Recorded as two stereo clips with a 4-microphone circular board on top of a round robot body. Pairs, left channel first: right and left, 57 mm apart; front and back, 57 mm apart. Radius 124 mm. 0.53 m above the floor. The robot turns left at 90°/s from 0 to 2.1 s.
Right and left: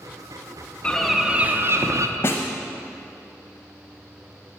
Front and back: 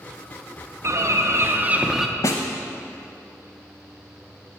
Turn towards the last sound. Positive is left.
turn(degrees=-40)